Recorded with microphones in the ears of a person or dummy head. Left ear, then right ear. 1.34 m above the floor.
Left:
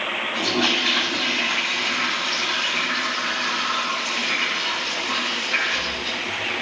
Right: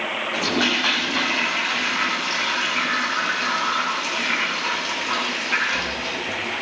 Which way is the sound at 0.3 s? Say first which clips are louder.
Even; 65° right (ahead or behind).